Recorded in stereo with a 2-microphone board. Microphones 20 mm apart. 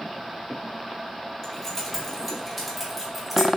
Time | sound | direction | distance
1.4 | keys jangling | 20° left (ahead or behind) | 1.9 m